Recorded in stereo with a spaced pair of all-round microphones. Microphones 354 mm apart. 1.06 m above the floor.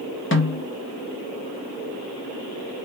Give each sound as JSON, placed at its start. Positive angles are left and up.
{"t": 0.3, "sound": "a snare drum", "side_deg": 35, "distance_m": 0.7}